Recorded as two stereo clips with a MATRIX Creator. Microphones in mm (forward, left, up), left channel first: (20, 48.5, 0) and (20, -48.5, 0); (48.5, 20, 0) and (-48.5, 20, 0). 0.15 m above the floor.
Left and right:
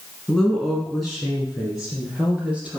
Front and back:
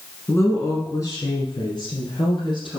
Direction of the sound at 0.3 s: 20° left.